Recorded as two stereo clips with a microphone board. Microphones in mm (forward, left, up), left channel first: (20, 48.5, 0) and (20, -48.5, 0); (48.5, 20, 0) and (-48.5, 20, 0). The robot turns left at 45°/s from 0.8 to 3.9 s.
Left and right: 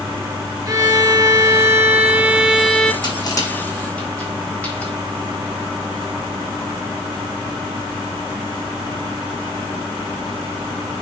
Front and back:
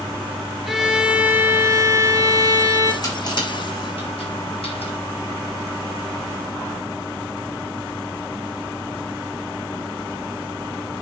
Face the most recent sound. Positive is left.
turn(degrees=15)